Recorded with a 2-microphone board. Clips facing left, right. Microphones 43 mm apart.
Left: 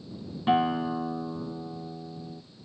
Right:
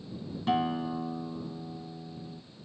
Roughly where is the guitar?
Left.